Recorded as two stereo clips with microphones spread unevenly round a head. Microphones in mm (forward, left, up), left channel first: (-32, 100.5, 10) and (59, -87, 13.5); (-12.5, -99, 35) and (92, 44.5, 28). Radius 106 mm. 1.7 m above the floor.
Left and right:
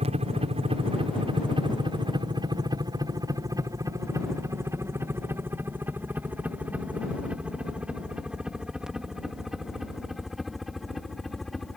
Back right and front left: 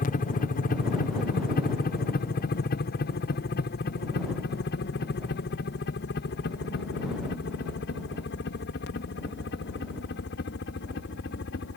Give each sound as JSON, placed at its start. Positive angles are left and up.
{"t": 0.0, "sound": "a helicopter", "azimuth_deg": -115}